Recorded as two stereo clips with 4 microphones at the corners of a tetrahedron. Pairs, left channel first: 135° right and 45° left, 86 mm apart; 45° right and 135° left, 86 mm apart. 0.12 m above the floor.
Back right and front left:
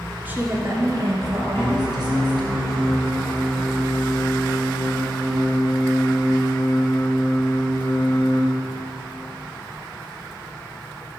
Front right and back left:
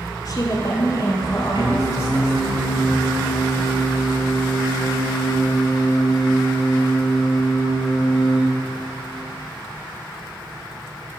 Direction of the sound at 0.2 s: 20° right.